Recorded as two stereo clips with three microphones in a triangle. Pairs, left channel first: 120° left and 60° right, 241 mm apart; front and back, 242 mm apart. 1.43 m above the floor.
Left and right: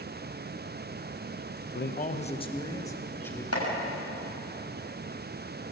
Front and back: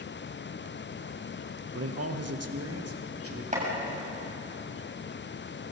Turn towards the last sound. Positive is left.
turn(degrees=120)